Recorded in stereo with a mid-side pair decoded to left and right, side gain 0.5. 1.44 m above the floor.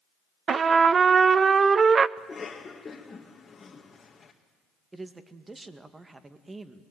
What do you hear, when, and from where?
0.5 s a trumpet: 40° right, 0.6 m
2.2 s a cough: 30° left, 1.9 m
4.9 s a man speaking: 20° right, 2 m